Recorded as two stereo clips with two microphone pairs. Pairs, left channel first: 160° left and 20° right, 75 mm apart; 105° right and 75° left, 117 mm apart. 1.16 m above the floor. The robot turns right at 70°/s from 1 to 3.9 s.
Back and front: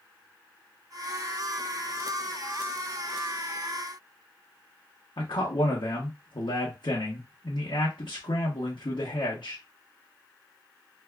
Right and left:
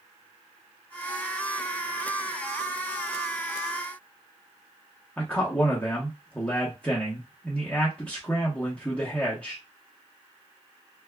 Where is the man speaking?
Straight behind, 0.8 m.